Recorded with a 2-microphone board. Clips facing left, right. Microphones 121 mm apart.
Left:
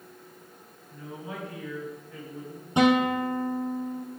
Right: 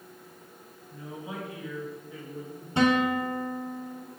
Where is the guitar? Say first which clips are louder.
Left 2 dB; 20° left (ahead or behind), 1.0 m.